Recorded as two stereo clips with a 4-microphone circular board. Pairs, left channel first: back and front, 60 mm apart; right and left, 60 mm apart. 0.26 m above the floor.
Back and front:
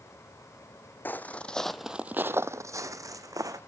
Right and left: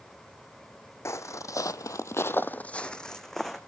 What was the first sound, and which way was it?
Footsteps, 125° right.